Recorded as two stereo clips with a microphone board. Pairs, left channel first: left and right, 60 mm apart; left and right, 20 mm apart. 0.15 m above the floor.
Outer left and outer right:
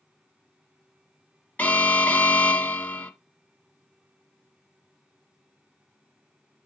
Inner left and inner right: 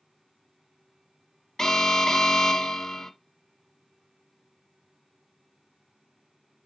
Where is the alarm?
25° left (ahead or behind), 1.1 m.